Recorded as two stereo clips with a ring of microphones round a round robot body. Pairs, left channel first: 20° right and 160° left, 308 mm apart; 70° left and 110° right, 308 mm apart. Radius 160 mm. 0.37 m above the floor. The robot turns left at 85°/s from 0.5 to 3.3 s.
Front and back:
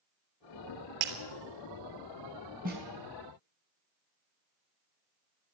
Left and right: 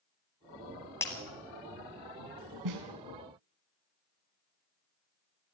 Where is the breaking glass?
150° left, 3 m; by 1.1 s 140° left, 3 m.